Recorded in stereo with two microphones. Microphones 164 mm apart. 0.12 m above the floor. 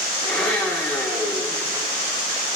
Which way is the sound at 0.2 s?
5° left (ahead or behind).